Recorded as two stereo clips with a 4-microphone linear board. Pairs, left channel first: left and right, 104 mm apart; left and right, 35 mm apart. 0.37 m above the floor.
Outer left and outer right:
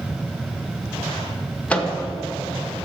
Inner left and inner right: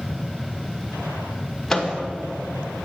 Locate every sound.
1.7 s a microwave: 15° left (ahead or behind), 0.7 m